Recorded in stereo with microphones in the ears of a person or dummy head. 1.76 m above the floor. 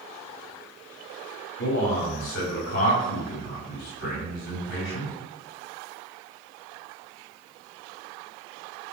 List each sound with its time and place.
1.6 s a man speaking: 60° left (ahead or behind), 4.5 m